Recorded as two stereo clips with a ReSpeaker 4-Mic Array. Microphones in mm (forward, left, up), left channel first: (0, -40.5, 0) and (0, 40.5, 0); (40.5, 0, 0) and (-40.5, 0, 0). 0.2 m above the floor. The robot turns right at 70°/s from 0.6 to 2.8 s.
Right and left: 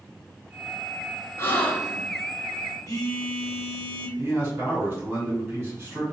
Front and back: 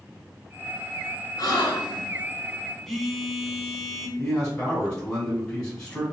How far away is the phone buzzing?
About 0.9 m.